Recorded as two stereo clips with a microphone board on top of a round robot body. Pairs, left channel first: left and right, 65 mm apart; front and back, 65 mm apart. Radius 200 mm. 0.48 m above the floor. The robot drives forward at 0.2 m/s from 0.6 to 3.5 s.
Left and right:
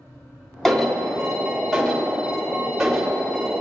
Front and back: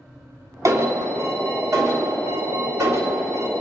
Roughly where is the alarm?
Behind.